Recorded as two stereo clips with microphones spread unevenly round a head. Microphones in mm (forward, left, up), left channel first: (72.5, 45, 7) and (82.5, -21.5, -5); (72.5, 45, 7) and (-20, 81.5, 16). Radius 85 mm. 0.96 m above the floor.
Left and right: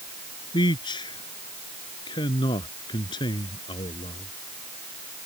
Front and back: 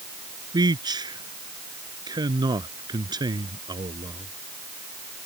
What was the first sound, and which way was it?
A man speaking, 115° left.